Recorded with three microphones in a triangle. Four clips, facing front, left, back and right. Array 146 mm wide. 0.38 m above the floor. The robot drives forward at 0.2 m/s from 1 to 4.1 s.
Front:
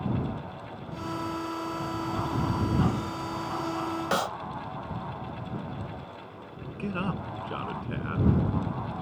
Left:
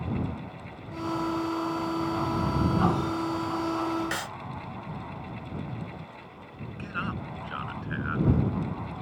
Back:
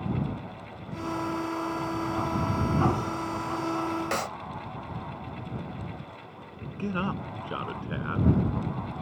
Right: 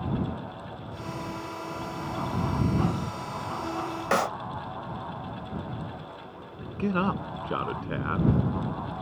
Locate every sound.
4.1 s a clap: 70° right
6.8 s a man speaking: 95° right